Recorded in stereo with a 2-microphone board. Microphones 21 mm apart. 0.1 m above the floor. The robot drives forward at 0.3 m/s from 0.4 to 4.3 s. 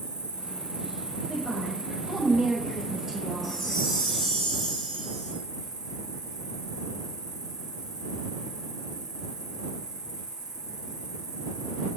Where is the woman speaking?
15° right (ahead or behind), 1.3 m; by 3.6 s 10° right (ahead or behind), 1.8 m.